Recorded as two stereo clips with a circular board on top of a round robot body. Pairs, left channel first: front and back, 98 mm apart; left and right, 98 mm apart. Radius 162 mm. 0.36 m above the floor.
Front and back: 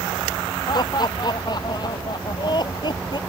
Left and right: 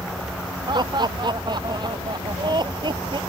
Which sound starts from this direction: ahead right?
Laughter, at 0.7 s.